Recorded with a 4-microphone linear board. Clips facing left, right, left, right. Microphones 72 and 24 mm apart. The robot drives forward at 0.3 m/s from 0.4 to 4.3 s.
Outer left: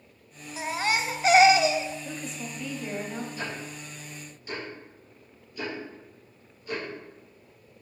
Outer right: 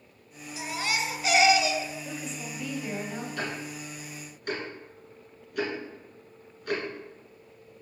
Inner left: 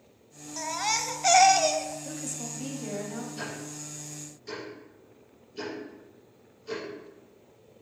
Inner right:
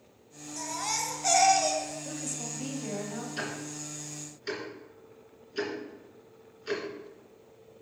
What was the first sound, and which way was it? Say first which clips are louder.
A baby crying: outer left 3 dB, inner left 4 dB; 40° left (ahead or behind).